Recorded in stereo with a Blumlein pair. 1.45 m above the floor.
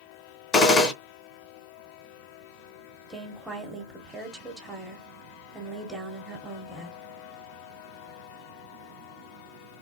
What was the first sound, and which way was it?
A gunshot, 20° left.